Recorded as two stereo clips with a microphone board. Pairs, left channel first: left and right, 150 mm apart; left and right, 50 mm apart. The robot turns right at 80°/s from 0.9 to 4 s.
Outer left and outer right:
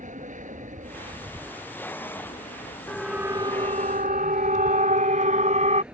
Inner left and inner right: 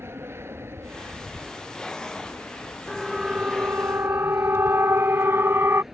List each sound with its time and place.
0.0 s an aircraft: 60° right; by 5.9 s 175° right
2.9 s a siren: 10° left (ahead or behind); by 5.8 s 50° right (ahead or behind)